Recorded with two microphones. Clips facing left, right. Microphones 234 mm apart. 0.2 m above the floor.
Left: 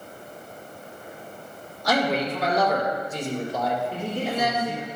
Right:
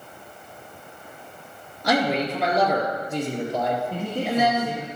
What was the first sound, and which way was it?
A man speaking, 65° right (ahead or behind).